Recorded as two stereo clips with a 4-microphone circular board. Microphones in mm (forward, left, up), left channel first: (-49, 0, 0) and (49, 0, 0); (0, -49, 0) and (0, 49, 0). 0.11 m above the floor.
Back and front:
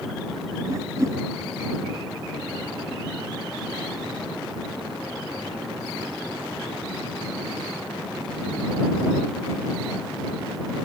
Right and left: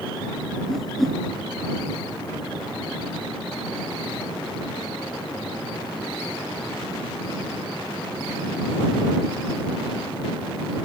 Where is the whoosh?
5° right.